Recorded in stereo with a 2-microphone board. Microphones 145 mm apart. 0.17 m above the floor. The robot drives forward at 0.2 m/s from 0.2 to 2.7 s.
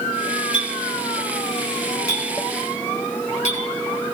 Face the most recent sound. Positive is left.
turn(degrees=65)  # may be behind; listen again after turning